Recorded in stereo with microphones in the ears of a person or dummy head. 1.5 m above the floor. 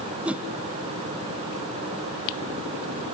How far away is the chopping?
I don't hear chopping.